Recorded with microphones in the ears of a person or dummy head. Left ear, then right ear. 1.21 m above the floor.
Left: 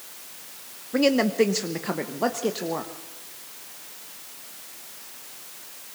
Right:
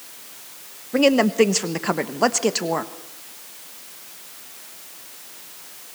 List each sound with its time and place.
0.9 s a woman speaking: 10° right (ahead or behind), 0.9 m; by 2.9 s 55° right (ahead or behind), 1.5 m